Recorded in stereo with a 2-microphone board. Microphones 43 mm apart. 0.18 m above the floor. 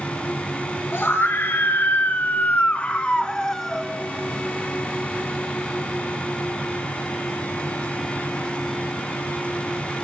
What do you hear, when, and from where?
0.9 s a scream: 65° left (ahead or behind), 3 m; by 3.9 s centre (ahead or behind), 1.8 m